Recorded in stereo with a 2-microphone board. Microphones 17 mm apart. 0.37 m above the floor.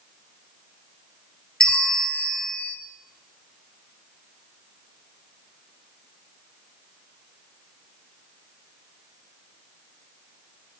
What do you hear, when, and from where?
1.6 s a bell: 80° left, 1.3 m